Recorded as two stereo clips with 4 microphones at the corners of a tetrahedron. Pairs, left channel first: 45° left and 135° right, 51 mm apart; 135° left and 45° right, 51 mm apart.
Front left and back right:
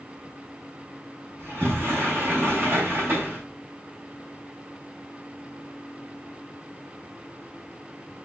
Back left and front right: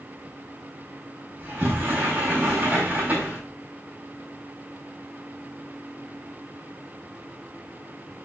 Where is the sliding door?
100° right, 4 m.